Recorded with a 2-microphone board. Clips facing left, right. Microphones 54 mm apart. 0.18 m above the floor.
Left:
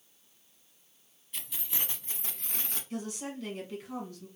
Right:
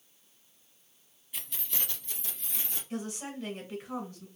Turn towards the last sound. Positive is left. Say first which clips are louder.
# even
turn(degrees=-20)  # may be behind; listen again after turning